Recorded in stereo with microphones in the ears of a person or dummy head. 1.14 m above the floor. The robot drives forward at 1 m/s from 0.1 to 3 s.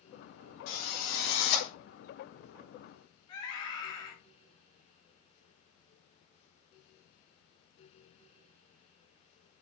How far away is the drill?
About 4.5 m.